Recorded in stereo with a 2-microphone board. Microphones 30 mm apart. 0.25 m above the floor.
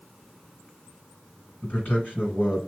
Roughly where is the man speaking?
Left.